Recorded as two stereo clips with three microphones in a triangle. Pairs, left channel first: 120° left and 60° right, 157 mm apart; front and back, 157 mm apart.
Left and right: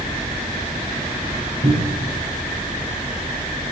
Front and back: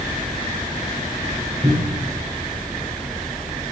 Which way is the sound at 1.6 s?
120° right.